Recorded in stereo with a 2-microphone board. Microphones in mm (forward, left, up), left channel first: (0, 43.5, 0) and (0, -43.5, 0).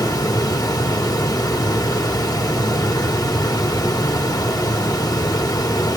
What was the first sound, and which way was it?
Running water, 50° left (ahead or behind).